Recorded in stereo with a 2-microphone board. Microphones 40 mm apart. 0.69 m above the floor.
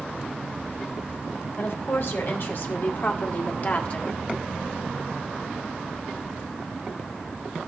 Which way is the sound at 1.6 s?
65° left (ahead or behind).